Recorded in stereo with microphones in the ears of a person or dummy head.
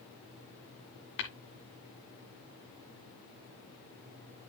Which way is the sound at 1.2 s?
65° left (ahead or behind).